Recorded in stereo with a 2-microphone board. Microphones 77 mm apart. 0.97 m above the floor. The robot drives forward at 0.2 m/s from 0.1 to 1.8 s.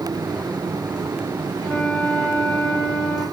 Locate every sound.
1.6 s a flute: 30° left (ahead or behind), 3.5 m